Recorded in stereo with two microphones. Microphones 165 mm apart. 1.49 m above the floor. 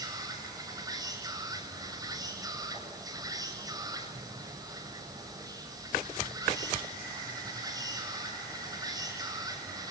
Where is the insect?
20° right (ahead or behind), 7.5 m.